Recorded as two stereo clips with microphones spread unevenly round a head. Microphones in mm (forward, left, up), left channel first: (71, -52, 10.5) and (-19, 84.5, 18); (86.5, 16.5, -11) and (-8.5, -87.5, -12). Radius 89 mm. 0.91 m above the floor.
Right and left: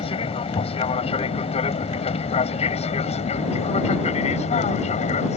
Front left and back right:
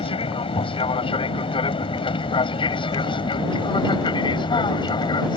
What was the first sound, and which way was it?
An aircraft, straight ahead.